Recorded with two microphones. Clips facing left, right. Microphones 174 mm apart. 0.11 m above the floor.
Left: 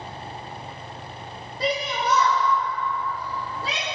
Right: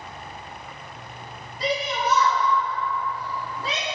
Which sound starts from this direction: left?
A shout, at 1.6 s.